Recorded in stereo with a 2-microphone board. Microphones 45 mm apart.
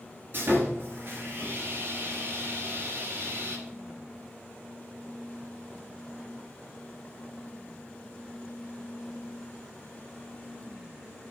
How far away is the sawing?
About 3.5 m.